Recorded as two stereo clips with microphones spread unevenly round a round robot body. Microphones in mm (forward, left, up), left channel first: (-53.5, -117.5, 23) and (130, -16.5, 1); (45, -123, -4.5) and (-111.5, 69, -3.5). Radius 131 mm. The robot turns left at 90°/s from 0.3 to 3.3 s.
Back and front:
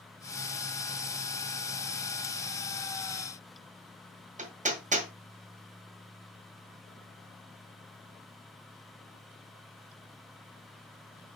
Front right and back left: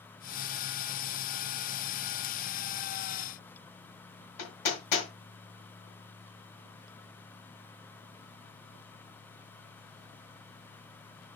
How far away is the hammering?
About 1.7 m.